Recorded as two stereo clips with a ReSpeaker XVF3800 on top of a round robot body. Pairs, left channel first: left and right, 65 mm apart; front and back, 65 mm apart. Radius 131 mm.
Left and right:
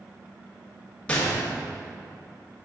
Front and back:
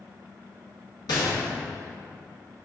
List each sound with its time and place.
1.1 s a gunshot: 20° left, 1.5 m